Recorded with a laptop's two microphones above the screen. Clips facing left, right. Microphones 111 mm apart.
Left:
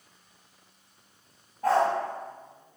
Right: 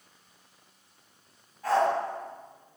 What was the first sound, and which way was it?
A dog barking, 50° left (ahead or behind).